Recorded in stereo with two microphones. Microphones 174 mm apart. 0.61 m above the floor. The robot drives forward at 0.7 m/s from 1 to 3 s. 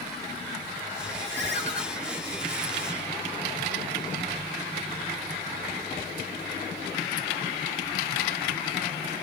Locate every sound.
1.3 s a ringtone: 80° right, 1.0 m; by 1.8 s 70° right (ahead or behind), 1.1 m